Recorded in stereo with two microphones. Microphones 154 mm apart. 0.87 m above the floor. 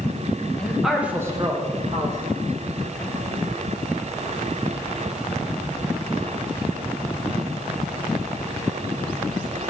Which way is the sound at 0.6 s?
5° left (ahead or behind).